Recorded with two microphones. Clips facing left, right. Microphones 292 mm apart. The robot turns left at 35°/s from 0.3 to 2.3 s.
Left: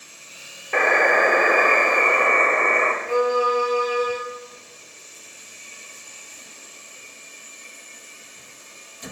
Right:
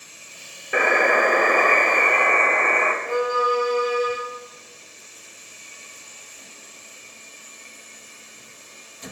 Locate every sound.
0.7 s a buzzer: 165° right, 0.8 m; by 2.9 s 140° left, 0.8 m
3.0 s a violin: 5° left (ahead or behind), 4.5 m